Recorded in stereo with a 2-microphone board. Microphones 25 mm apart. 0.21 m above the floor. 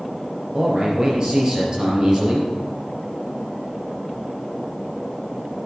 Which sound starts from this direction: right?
A man speaking, at 0.5 s.